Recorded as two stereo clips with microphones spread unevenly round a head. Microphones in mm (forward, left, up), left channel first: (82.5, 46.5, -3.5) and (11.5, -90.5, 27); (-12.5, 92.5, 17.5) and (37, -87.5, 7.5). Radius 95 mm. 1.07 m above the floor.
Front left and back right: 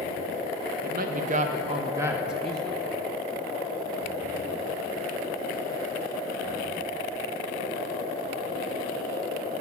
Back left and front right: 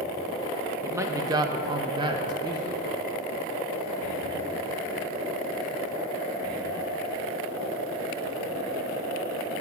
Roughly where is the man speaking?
Behind right.